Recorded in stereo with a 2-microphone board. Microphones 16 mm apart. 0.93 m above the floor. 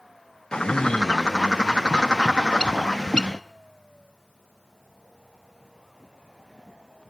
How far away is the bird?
About 0.5 m.